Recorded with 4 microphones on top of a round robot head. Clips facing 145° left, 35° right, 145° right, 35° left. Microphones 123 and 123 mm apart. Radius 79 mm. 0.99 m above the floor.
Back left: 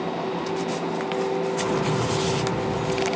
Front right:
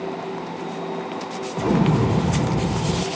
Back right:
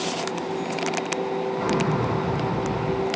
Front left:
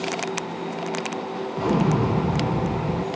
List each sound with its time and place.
1.6 s an explosion: 30° right, 0.7 m